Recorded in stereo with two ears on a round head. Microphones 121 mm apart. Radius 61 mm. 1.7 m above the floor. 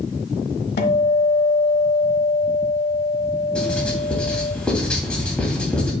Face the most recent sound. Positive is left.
turn(degrees=10)  # may be behind; listen again after turning